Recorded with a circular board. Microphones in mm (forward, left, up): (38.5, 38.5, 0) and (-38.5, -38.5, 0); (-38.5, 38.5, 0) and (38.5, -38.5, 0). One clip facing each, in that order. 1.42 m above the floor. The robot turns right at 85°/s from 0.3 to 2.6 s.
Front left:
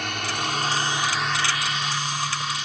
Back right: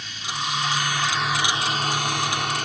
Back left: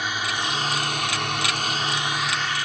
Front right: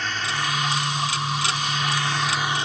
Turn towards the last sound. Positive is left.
turn(degrees=-105)